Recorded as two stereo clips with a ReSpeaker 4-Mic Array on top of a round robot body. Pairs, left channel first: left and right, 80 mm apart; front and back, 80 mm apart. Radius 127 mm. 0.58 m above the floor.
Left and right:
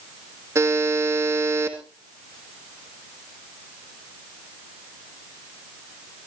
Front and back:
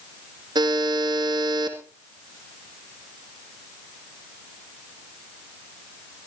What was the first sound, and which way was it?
A buzzer, 145° right.